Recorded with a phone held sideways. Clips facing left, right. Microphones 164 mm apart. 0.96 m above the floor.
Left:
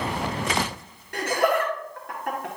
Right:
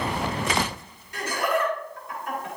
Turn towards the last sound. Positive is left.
turn(degrees=65)  # may be behind; listen again after turning